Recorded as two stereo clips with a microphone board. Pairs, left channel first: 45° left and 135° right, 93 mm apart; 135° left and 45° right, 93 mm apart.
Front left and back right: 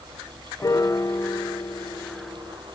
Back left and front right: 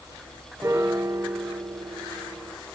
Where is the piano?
5° left, 0.7 m.